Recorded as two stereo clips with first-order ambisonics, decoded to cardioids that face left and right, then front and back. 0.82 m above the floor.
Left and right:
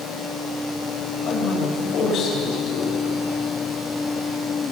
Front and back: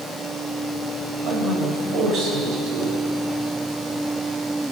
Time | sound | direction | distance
1.2 | a man speaking | 135° left | 3 m